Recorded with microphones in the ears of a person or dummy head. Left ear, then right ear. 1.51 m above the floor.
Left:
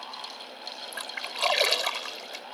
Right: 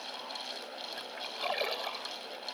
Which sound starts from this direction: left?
A splash, at 0.9 s.